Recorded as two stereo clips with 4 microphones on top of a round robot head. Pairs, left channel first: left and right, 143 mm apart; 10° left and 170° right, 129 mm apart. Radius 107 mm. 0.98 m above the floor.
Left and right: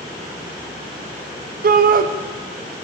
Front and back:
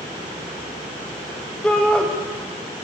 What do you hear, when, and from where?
1.6 s a shout: 75° right, 0.8 m